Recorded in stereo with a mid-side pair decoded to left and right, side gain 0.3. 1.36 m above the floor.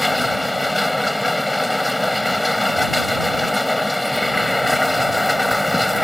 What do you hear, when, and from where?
0.0 s a machine running: 10° left